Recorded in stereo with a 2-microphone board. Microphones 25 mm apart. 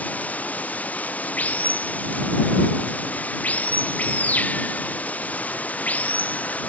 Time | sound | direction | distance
0.0 | running water | 85° left | ?